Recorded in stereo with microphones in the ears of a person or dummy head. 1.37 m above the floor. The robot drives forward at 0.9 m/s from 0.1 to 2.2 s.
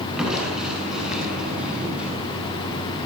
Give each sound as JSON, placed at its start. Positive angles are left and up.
{"t": 0.2, "sound": "crushing", "side_deg": -5, "distance_m": 9.5}